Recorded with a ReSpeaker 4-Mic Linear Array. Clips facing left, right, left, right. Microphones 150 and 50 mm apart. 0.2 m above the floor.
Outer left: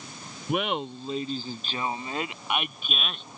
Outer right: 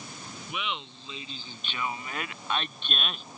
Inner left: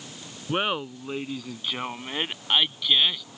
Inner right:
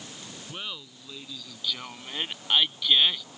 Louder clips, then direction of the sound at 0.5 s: Outer left 9 dB, inner left 14 dB; 55° left (ahead or behind).